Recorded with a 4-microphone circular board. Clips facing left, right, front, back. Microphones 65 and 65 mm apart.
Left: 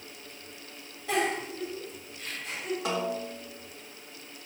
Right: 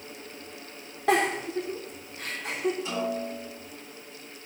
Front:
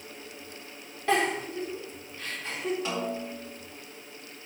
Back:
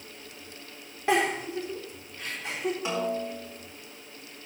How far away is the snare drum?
About 4 m.